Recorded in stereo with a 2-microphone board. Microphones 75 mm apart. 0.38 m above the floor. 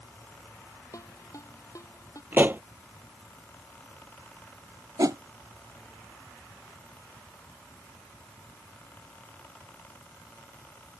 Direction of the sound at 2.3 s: 30° right (ahead or behind).